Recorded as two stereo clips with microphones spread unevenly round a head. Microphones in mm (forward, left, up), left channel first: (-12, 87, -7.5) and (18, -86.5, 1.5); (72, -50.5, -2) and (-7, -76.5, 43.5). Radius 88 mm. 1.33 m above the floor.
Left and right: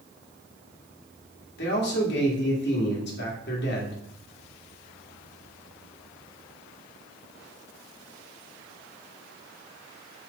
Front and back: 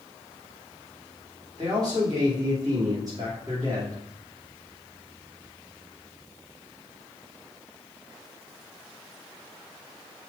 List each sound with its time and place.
1.6 s a man speaking: 130° left, 2.5 m